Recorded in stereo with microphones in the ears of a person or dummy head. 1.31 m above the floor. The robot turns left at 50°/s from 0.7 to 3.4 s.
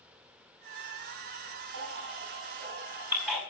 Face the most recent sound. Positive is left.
turn(degrees=0)  # may be behind; listen again after turning